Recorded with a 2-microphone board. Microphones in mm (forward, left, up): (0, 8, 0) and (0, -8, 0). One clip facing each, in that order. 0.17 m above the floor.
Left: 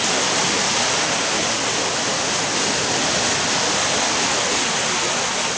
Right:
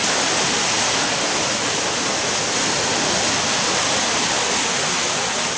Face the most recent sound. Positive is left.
No sound to turn to.